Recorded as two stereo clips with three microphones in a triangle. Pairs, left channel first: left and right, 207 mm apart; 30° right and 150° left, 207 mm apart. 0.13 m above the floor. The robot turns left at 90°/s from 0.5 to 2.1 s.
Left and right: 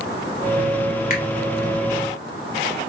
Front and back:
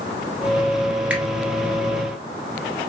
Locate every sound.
1.1 s a finger snap: 70° left, 1.6 m; by 1.2 s 60° left, 1.6 m